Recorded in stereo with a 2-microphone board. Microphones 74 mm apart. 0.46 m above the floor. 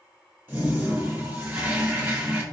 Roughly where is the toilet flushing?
Right.